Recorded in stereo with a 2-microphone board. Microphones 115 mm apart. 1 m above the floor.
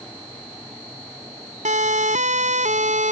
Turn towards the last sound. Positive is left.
turn(degrees=-85)